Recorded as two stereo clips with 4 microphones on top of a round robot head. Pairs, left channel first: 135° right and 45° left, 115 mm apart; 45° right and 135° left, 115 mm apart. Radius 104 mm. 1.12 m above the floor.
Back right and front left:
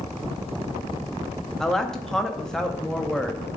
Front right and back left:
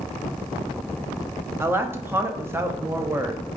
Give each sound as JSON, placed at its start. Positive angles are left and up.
{"t": 1.6, "sound": "a woman speaking", "azimuth_deg": 145, "distance_m": 0.6}